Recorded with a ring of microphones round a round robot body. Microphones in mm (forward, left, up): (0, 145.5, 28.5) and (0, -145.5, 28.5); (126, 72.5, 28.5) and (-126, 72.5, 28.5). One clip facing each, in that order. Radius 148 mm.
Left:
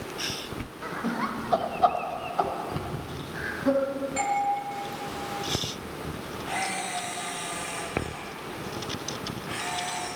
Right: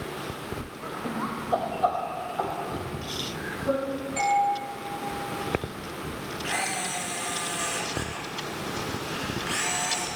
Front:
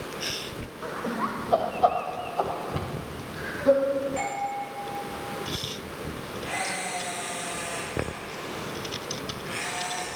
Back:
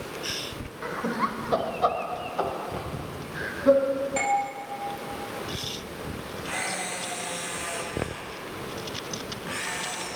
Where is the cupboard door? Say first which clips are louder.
Right 1 dB, front 1 dB; 20° left, 4 m.